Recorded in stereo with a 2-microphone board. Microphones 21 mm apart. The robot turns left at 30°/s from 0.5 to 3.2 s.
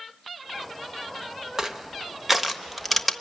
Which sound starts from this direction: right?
Crushing, at 1.6 s.